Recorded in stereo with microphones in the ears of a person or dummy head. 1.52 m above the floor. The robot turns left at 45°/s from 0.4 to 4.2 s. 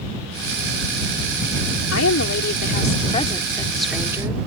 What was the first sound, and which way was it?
A woman speaking, 90° left.